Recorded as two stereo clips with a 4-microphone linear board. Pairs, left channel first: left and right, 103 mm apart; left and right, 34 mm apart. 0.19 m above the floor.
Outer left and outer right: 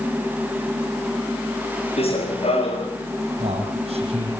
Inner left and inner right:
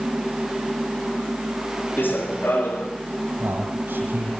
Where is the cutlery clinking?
I don't hear cutlery clinking.